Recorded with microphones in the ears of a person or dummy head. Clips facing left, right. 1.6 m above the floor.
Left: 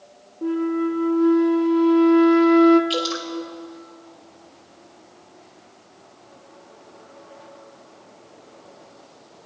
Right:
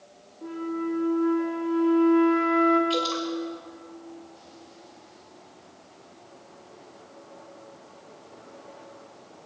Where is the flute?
60° left (ahead or behind), 1.2 m.